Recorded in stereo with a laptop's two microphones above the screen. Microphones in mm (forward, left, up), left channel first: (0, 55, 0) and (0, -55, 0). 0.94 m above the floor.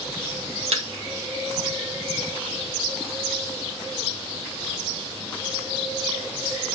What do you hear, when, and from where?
0.7 s a thud: 65° right (ahead or behind), 2 m